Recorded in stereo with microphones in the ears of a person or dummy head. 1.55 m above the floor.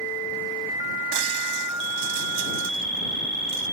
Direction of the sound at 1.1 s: 85° right.